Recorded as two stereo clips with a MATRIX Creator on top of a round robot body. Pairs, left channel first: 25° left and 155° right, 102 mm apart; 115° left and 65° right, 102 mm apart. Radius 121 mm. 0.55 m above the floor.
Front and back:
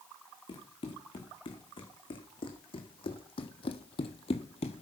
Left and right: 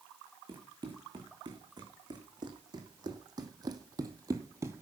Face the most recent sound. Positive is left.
turn(degrees=0)